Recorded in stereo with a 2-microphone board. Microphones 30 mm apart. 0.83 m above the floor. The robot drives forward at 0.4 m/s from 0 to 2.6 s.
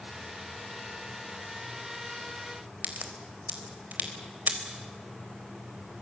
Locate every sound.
2.8 s a crack: 80° right, 4 m